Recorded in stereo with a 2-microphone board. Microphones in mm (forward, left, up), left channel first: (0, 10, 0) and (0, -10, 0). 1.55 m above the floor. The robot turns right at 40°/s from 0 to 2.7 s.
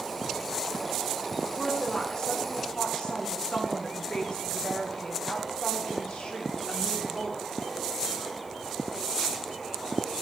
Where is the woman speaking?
25° left, 1.3 m; by 7.5 s 70° left, 1.3 m.